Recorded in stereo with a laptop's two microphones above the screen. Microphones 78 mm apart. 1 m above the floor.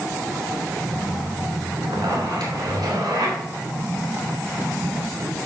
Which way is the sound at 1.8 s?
80° right.